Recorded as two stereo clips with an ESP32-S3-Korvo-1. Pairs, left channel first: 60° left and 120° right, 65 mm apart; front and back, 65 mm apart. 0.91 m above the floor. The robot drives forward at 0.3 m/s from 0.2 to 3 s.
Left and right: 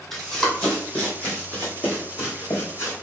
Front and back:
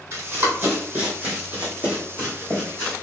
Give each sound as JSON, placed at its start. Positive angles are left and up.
{"t": 0.1, "sound": "running footsteps", "azimuth_deg": 135, "distance_m": 1.5}